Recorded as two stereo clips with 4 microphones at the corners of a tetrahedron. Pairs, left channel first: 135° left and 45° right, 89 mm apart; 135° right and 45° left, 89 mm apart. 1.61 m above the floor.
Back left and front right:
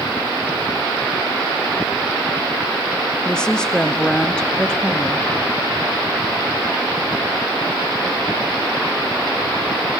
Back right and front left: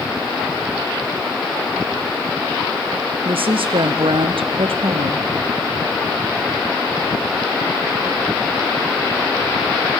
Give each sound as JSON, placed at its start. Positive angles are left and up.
{"t": 3.2, "sound": "a woman speaking", "azimuth_deg": 55, "distance_m": 0.6}